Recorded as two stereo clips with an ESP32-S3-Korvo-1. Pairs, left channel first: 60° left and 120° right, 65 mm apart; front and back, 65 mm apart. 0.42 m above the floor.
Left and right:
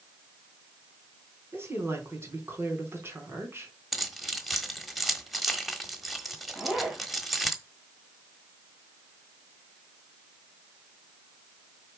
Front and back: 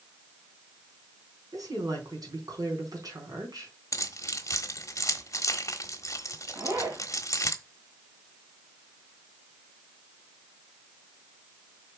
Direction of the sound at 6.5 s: 160° left.